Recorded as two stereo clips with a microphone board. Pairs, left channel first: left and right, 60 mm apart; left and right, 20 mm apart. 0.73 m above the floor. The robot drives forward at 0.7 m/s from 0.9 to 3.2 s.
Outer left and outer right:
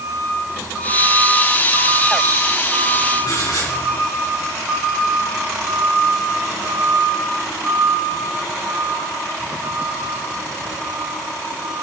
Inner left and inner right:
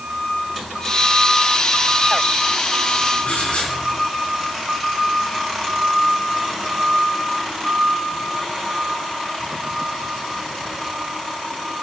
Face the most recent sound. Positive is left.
turn(degrees=80)